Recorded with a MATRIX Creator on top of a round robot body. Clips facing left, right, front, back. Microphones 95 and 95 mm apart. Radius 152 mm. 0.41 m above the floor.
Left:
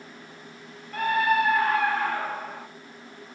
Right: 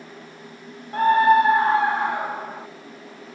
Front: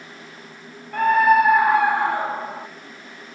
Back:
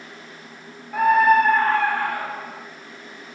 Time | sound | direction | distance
0.9 | a scream | 100° right | 1.6 m